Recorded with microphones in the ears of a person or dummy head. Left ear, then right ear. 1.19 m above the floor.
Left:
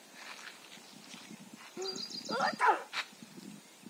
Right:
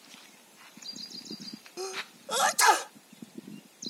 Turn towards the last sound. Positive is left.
turn(degrees=-85)